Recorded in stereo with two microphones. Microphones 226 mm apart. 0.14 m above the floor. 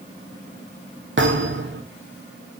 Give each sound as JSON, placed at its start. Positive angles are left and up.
{"t": 1.2, "sound": "a thud", "side_deg": -55, "distance_m": 2.0}